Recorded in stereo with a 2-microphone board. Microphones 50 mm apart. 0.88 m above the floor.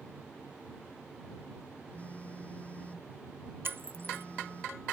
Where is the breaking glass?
50° right (ahead or behind).